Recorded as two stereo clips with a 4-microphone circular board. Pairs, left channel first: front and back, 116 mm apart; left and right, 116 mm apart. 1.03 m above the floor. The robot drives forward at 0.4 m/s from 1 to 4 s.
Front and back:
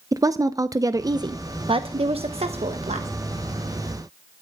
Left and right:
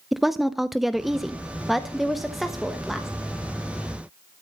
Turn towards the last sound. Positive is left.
turn(degrees=180)